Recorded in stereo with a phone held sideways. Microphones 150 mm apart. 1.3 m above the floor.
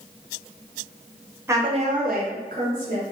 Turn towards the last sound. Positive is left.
turn(degrees=-60)  # may be behind; listen again after turning